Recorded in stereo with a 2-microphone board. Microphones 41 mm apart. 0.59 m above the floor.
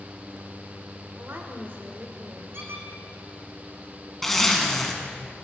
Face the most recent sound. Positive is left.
turn(degrees=10)  # may be behind; listen again after turning